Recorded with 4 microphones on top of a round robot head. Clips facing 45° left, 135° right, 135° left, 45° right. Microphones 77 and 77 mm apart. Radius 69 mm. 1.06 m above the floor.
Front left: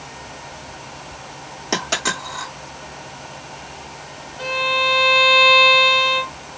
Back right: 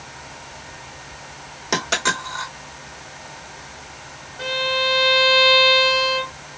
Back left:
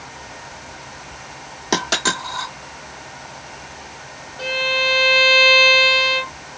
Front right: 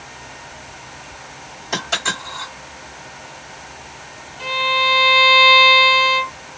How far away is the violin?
About 1.2 m.